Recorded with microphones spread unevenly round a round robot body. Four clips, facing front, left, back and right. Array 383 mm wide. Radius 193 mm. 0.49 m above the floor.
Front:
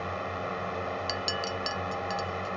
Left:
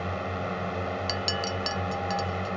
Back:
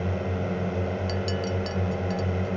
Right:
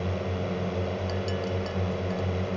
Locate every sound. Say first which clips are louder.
0.0 s a drone: right 1 dB, back 4 dB; 160° right
1.1 s a clink: right 1 dB, back 4 dB; 70° left